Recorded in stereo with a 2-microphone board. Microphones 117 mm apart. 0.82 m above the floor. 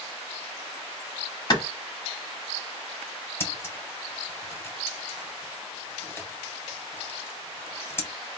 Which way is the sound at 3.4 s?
20° left (ahead or behind).